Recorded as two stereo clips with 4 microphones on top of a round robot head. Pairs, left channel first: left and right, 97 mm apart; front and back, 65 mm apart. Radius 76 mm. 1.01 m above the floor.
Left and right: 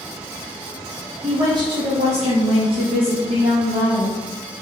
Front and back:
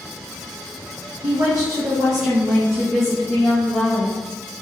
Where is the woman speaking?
155° right, 0.7 m; by 4.2 s 50° right, 1.2 m.